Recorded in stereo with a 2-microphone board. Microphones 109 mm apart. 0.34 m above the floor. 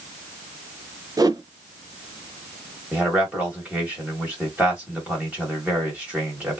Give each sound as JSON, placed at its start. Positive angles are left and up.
{"t": 1.2, "sound": "a whoosh", "side_deg": -35, "distance_m": 0.6}
{"t": 2.9, "sound": "a man speaking", "side_deg": -10, "distance_m": 1.7}